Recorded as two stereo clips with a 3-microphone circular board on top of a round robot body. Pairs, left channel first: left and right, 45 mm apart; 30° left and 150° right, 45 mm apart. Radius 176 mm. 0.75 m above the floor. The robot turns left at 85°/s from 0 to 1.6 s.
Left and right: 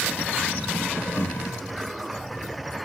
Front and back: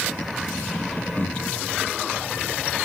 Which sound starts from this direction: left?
Breathing, at 1.2 s.